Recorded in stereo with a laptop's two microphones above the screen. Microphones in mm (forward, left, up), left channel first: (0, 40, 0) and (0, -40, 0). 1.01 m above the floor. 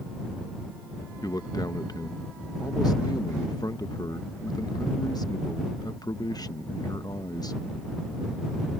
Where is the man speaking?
55° left (ahead or behind).